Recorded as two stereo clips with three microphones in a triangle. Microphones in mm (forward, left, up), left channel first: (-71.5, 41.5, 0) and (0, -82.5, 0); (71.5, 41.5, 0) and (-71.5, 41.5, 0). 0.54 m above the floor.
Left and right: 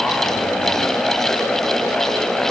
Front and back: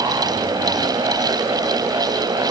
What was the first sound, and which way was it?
Only background noise.